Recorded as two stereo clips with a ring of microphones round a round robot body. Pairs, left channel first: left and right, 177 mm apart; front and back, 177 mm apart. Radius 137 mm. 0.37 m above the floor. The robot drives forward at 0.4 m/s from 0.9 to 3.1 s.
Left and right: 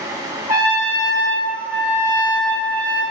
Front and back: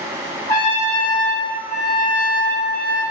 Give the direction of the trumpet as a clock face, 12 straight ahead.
1 o'clock.